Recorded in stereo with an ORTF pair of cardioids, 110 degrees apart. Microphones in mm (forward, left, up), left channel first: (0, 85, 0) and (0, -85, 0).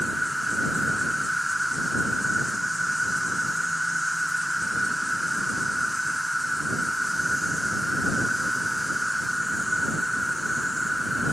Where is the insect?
Straight ahead.